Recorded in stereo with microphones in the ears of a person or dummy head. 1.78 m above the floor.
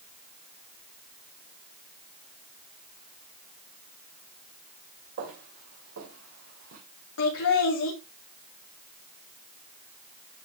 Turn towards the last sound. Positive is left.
turn(degrees=75)  # may be behind; listen again after turning